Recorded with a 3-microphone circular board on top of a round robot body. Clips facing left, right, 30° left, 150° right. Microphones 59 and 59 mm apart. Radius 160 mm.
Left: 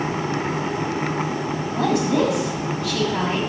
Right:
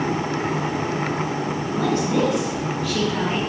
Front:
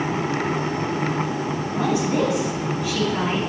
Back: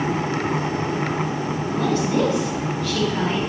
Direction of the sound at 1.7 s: 105° left.